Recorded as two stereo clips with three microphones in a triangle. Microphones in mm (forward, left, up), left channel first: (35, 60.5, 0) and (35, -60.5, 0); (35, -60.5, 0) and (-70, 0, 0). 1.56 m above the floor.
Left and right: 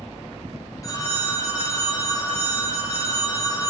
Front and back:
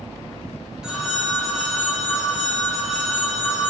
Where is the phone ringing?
75° left, 0.5 m.